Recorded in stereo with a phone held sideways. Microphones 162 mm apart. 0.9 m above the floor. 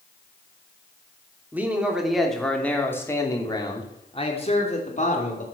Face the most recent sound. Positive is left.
turn(degrees=50)  # may be behind; listen again after turning